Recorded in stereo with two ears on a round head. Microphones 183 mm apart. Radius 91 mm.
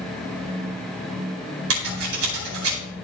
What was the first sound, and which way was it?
Scissors, 75° right (ahead or behind).